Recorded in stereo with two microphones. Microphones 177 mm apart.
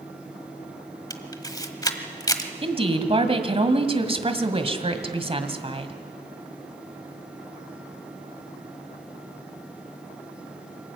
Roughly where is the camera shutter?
Left.